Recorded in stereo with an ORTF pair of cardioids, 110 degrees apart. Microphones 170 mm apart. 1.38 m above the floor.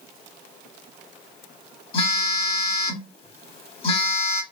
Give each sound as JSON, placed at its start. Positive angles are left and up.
{"t": 1.9, "sound": "a phone buzzing", "azimuth_deg": 35, "distance_m": 0.9}